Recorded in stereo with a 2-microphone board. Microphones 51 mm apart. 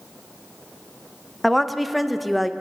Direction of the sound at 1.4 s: Centre (ahead or behind).